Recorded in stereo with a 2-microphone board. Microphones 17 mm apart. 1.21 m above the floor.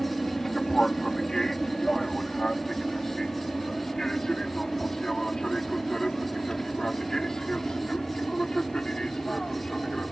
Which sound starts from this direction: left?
An aircraft, at 0.0 s.